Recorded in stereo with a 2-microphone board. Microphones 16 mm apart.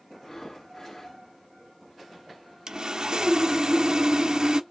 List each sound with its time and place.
0.1 s breathing: 30° left (ahead or behind), 0.9 m
2.7 s sawing: 50° right (ahead or behind), 0.6 m